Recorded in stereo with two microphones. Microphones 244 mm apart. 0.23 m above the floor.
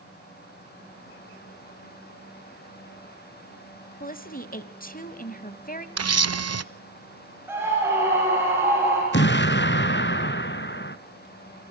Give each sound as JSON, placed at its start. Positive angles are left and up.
{"t": 4.0, "sound": "a woman speaking", "side_deg": 35, "distance_m": 1.1}
{"t": 6.0, "sound": "a camera shutter", "side_deg": -75, "distance_m": 0.6}
{"t": 7.5, "sound": "a scream", "side_deg": -10, "distance_m": 4.5}
{"t": 9.1, "sound": "an explosion", "side_deg": 45, "distance_m": 1.1}